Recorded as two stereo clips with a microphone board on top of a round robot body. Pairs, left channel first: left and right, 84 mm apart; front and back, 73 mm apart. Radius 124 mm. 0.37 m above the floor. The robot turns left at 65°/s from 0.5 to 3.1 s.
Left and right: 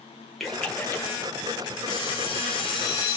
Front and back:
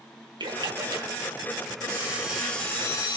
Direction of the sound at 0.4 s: Straight behind.